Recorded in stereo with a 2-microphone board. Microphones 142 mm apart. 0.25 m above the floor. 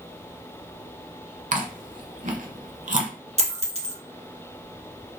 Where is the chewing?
70° right (ahead or behind), 0.6 m.